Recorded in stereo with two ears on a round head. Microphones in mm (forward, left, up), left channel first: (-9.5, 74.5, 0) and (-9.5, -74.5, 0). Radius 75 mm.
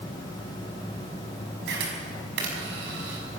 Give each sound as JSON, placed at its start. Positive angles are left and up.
{"t": 1.7, "sound": "a camera shutter", "side_deg": -70, "distance_m": 5.5}